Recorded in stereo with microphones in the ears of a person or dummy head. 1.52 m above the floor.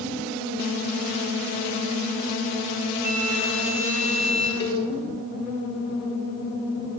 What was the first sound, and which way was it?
A flute, 45° right (ahead or behind).